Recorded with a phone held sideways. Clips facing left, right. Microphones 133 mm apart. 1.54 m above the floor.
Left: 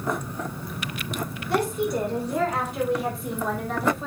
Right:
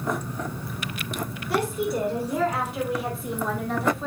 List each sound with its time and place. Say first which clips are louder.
1.5 s a woman speaking: left 1 dB; 5° right (ahead or behind), 4.5 m; by 4.1 s centre (ahead or behind), 3 m